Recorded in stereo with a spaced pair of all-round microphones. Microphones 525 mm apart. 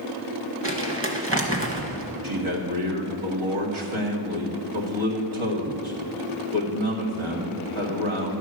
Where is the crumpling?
25° right (ahead or behind), 1.5 m.